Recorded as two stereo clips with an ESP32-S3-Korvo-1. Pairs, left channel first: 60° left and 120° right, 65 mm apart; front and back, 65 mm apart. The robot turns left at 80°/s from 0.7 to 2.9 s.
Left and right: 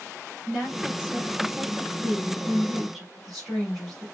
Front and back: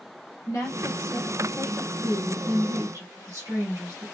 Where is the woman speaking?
30° right, 1.6 m; by 4.1 s 155° left, 1.6 m.